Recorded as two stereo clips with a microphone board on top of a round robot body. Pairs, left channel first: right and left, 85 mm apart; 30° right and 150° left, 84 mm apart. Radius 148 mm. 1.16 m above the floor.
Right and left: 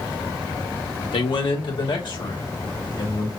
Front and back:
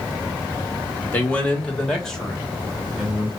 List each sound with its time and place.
1.1 s a man speaking: 100° right, 1.3 m; by 3.3 s 125° right, 2.5 m